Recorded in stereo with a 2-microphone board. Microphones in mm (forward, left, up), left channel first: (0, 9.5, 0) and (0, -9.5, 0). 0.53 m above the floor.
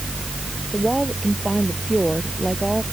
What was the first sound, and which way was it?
A woman speaking, 5° right (ahead or behind).